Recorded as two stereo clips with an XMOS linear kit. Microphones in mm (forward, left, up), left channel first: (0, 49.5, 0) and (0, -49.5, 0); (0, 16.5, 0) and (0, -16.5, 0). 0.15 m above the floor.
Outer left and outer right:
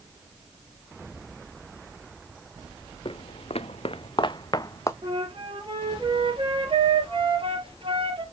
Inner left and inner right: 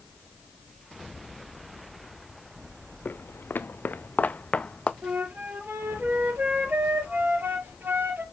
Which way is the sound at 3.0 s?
65° left (ahead or behind).